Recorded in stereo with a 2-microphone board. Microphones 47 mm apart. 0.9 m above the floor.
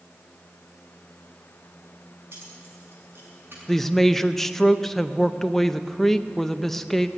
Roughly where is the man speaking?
Centre.